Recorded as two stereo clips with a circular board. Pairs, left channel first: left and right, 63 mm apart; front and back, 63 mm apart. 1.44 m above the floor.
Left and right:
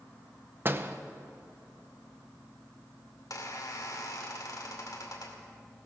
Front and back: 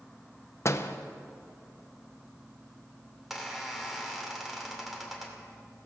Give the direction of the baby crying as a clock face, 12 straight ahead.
No baby crying in this recording.